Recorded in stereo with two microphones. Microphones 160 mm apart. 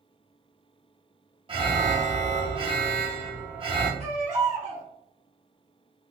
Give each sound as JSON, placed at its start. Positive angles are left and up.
{"t": 1.5, "sound": "an alarm", "side_deg": -30, "distance_m": 0.7}
{"t": 4.0, "sound": "a baby crying", "side_deg": -40, "distance_m": 1.0}